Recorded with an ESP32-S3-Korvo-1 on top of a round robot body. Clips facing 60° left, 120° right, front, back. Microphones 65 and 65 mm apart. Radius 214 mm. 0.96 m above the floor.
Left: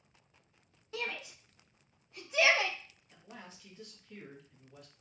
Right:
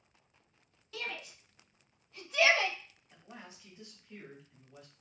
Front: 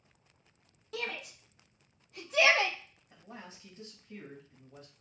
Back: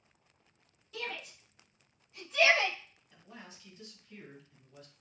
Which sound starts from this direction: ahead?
A shout, at 0.9 s.